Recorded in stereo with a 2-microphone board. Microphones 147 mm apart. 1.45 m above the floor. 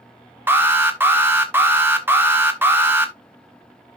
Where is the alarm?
15° right (ahead or behind), 1.3 m.